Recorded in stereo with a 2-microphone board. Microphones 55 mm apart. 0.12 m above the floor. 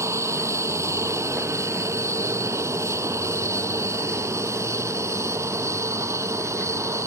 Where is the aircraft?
65° right (ahead or behind).